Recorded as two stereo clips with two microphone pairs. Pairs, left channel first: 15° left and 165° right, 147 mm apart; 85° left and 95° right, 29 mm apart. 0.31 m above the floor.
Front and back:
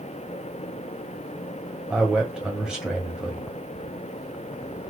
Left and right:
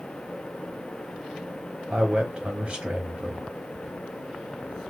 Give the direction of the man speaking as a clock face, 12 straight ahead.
3 o'clock.